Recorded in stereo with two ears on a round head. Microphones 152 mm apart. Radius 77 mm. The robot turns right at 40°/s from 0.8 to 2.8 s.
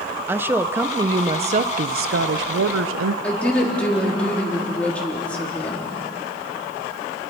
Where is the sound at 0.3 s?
170° right, 0.7 m; by 3.1 s 90° right, 0.7 m.